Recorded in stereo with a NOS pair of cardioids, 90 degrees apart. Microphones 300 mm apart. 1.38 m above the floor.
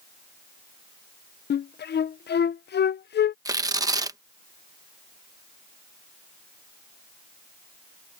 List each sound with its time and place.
1.5 s a flute: 35° left
3.5 s tearing paper: 10° right